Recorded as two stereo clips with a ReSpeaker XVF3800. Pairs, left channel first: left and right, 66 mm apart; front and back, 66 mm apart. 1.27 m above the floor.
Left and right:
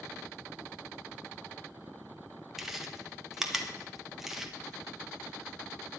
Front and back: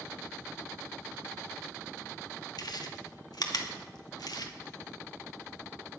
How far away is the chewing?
About 1.5 m.